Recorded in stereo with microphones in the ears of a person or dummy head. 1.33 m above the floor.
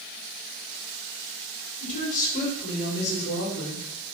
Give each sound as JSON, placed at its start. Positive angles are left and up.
{"t": 1.8, "sound": "a woman speaking", "side_deg": 40, "distance_m": 4.5}